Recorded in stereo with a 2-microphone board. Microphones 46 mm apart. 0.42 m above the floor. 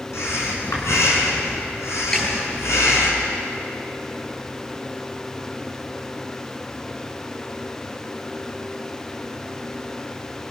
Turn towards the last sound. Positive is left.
turn(degrees=15)  # may be behind; listen again after turning